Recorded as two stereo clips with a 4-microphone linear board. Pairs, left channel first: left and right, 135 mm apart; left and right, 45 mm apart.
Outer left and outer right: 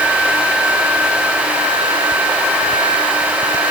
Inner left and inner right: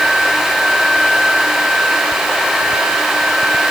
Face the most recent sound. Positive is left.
No sound to turn to.